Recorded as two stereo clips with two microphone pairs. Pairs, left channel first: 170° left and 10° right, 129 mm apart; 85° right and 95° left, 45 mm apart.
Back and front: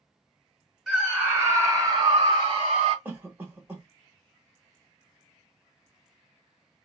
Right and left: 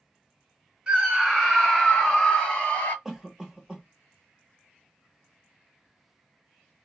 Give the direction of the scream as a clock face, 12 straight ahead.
10 o'clock.